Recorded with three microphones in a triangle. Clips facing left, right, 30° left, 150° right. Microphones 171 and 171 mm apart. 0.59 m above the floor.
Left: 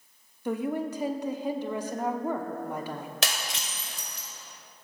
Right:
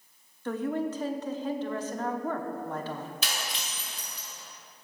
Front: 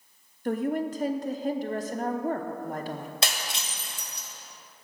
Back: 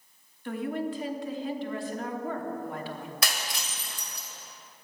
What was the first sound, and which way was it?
A woman speaking, 20° left.